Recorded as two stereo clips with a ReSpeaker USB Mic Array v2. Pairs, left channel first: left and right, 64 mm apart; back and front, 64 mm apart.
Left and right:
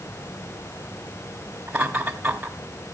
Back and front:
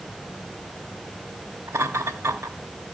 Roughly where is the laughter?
Ahead right.